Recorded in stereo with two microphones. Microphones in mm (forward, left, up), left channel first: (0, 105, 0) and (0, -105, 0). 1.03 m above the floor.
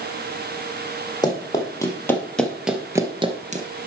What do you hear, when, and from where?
1.2 s running footsteps: 20° left (ahead or behind), 2.5 m; by 3.7 s 40° right (ahead or behind), 1.2 m